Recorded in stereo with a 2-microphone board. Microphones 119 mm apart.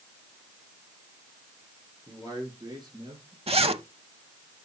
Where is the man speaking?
30° right (ahead or behind), 5 m; by 3.4 s 45° right (ahead or behind), 4 m.